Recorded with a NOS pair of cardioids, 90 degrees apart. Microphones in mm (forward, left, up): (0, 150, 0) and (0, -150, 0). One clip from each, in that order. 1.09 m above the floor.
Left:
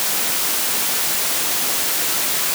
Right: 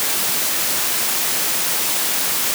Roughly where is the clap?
I don't hear a clap.